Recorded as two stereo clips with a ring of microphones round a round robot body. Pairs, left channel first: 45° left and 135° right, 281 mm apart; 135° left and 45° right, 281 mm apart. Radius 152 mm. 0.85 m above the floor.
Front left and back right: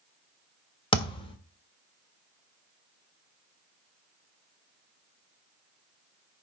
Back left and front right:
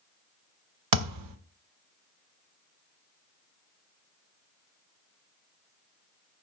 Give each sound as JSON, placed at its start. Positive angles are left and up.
{"t": 0.9, "sound": "a thud", "azimuth_deg": -30, "distance_m": 1.4}